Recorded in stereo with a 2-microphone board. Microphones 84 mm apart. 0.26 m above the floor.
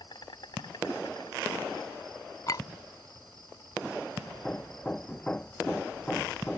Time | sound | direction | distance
0.0 | an insect | 65° left (ahead or behind) | ?
2.5 | a clink | 50° left (ahead or behind) | ?
4.3 | hammering | 15° left (ahead or behind) | ?